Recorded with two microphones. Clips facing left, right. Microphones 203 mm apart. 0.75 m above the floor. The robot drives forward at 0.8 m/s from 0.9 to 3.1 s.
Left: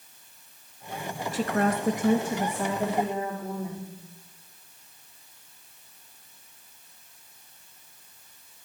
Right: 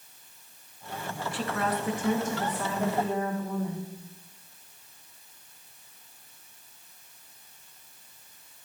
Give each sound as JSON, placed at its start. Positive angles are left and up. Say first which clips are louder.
{"t": 1.3, "sound": "a woman speaking", "louder": "left 5 dB", "side_deg": 40, "distance_m": 0.6}